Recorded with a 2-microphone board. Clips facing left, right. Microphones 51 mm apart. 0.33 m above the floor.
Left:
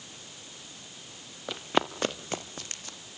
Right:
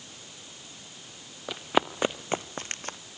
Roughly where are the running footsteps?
Centre.